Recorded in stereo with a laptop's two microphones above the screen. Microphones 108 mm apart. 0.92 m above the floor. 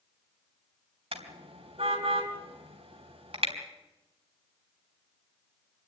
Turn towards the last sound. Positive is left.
turn(degrees=-60)  # may be behind; listen again after turning